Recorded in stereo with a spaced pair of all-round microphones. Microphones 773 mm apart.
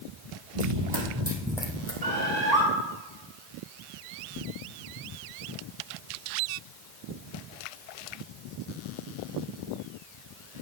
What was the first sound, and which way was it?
Running footsteps, 45° right (ahead or behind).